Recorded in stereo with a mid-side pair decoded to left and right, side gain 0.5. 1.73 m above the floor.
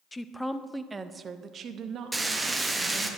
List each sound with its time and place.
0.1 s a woman speaking: 15° left, 0.8 m; by 3.1 s 75° right, 1.6 m
2.1 s frying: 15° right, 1.4 m